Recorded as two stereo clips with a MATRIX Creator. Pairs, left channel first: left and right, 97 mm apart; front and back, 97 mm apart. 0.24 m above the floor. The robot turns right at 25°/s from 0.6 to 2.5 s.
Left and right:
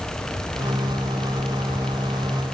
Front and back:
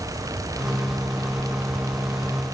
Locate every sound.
Only background noise.